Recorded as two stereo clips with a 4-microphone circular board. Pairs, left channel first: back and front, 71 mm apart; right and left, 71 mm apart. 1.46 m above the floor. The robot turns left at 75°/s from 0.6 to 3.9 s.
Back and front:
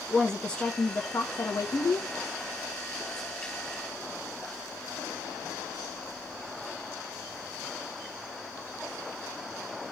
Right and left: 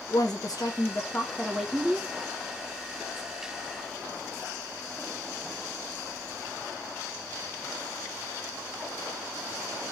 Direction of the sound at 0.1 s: 105° right.